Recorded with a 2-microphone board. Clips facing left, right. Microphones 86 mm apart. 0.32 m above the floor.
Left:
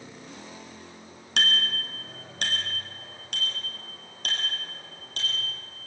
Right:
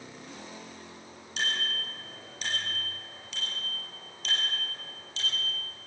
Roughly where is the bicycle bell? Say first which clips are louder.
Left 5 dB; left.